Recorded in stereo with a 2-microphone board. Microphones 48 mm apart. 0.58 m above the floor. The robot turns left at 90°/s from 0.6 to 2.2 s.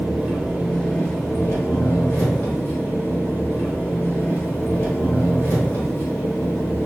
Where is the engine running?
165° right, 0.8 m; by 6.9 s 50° left, 0.8 m.